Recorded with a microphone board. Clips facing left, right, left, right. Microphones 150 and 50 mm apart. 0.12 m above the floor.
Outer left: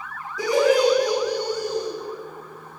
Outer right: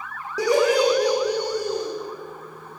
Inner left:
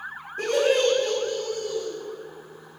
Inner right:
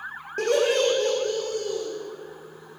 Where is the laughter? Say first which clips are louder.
Even, even; 75° right (ahead or behind), 5.5 m; by 1.9 s 65° right (ahead or behind), 6 m.